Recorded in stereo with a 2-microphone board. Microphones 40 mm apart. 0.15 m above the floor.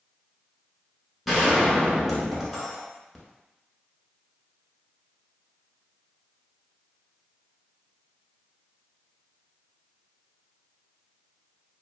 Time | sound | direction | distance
1.3 | a gunshot | centre (ahead or behind) | 0.8 m